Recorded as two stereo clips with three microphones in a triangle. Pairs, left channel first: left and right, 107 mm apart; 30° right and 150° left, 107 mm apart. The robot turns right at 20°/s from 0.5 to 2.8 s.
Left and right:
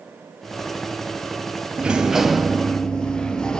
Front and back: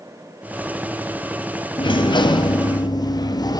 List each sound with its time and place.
1.8 s a sliding door: 10° right, 0.7 m; by 3.6 s 10° left, 0.7 m